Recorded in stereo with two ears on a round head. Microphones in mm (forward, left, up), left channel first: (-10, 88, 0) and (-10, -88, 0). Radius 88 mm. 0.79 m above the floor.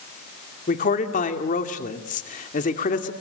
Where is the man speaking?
40° left (ahead or behind), 2.5 m.